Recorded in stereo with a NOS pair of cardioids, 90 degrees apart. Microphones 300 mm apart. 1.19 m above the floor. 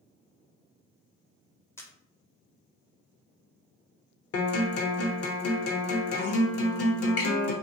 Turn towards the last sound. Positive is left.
turn(degrees=55)